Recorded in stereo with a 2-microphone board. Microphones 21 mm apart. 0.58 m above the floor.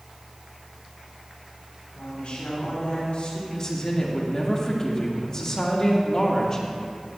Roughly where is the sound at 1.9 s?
Left.